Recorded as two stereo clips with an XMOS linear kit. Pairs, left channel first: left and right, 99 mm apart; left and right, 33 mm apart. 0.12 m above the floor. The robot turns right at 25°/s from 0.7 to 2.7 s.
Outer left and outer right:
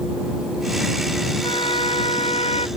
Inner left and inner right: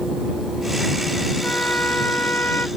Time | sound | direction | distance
1.4 | a trumpet | 60° left | ?